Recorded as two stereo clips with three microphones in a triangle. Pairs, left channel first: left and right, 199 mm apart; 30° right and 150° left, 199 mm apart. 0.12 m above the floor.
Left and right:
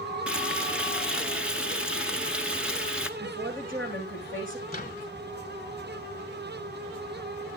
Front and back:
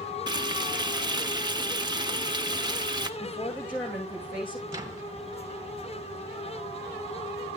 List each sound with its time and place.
0.3 s frying: 170° right, 0.9 m
3.2 s a woman speaking: 95° right, 7.5 m
4.7 s a microwave: 95° left, 1.4 m